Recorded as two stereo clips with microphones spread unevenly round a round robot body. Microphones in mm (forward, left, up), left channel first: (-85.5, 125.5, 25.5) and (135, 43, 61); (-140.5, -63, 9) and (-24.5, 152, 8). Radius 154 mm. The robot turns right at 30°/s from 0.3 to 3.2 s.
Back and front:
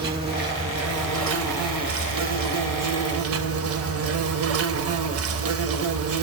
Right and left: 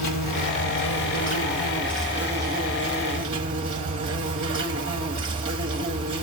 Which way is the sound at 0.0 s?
80° right.